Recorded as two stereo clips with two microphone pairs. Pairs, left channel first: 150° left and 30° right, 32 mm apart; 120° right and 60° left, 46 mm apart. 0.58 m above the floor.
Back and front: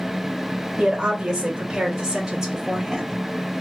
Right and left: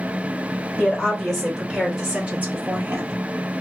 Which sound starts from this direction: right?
A woman speaking, at 0.8 s.